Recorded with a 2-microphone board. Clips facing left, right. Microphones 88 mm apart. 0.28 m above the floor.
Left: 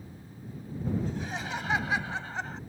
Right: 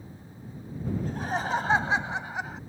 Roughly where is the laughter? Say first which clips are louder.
Right 4 dB; right.